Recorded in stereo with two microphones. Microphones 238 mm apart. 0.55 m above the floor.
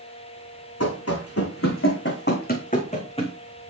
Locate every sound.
0.8 s running footsteps: 75° left (ahead or behind), 2.5 m; by 3.4 s 20° left (ahead or behind), 3 m